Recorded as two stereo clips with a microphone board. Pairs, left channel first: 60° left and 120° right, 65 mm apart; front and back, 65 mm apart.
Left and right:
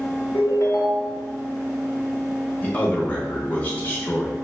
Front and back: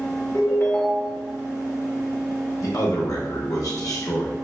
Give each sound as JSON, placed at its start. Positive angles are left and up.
{"t": 0.3, "sound": "a ringtone", "azimuth_deg": 50, "distance_m": 0.9}
{"t": 2.6, "sound": "a man speaking", "azimuth_deg": -5, "distance_m": 0.5}